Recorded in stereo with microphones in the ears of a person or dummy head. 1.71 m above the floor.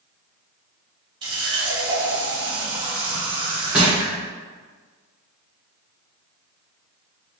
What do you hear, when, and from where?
1.2 s a running tap: 25° right (ahead or behind), 1.8 m
3.7 s crushing: 5° right (ahead or behind), 1.4 m